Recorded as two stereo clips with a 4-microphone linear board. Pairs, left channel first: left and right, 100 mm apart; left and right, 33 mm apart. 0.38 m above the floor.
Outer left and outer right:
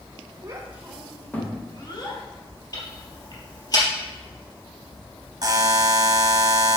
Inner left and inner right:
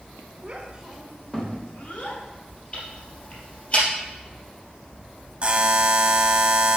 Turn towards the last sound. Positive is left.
turn(degrees=-40)  # may be behind; listen again after turning